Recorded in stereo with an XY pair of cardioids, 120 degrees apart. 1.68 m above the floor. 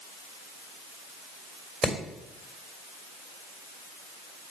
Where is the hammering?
5° right, 3 m.